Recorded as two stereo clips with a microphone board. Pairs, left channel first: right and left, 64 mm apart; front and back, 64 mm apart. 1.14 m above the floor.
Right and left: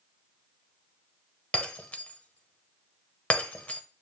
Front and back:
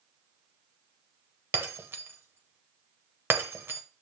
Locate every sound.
1.5 s breaking glass: 145° right, 1.1 m